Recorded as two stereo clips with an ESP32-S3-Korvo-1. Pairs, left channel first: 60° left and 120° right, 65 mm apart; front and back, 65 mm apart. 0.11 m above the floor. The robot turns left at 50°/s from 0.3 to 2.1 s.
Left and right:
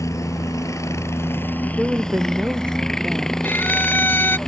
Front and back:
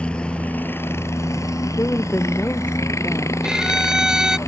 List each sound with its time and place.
0.0 s a helicopter: 70° left; by 4.5 s 20° right
1.7 s a woman speaking: 40° right; by 3.3 s 60° right
3.4 s a violin: 105° left